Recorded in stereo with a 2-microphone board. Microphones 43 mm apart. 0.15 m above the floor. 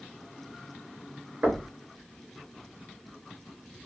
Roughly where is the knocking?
Right.